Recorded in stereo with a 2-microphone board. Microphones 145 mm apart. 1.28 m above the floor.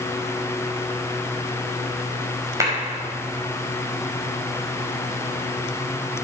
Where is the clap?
20° right (ahead or behind), 5.5 m.